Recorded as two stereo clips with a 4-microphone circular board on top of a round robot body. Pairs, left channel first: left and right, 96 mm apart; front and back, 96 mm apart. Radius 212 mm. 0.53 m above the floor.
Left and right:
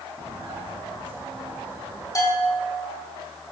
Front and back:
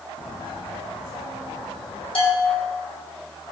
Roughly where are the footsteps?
Ahead right.